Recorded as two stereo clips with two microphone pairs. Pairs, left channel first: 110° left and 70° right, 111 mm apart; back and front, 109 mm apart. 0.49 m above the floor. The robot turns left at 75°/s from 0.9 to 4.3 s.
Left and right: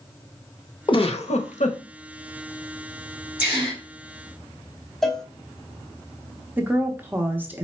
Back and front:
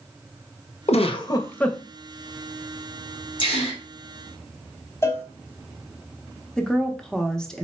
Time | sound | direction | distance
0.9 | a giggle | 155° left | 0.5 m
3.4 | a gasp | 140° right | 3 m
5.0 | a cowbell | 160° right | 0.7 m
6.6 | a woman speaking | 105° right | 0.7 m